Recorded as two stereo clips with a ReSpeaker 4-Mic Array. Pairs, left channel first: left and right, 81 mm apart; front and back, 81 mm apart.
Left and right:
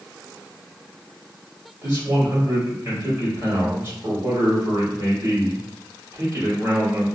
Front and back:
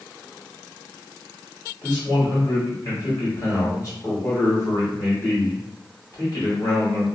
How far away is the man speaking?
About 2.0 m.